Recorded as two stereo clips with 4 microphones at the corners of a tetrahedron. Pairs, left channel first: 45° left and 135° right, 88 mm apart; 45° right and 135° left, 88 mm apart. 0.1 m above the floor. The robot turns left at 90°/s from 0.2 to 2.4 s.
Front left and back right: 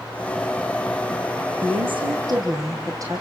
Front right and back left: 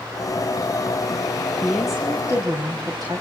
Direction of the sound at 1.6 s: 110° right.